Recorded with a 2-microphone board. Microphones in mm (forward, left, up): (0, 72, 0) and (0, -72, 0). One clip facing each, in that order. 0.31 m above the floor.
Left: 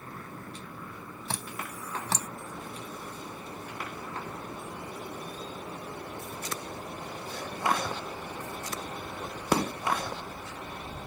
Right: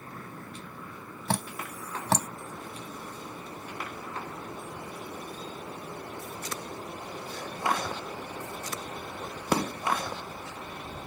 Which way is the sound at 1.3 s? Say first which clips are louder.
Right 6 dB; 60° right (ahead or behind).